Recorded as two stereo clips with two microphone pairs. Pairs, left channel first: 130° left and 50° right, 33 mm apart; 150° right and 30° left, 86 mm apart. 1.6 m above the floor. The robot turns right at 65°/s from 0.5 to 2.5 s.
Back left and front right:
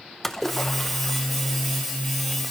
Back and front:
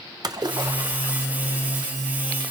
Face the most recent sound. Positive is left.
turn(degrees=-175)